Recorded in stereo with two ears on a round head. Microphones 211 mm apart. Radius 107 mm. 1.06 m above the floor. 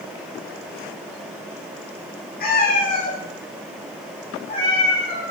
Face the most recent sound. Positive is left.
turn(degrees=20)  # may be behind; listen again after turning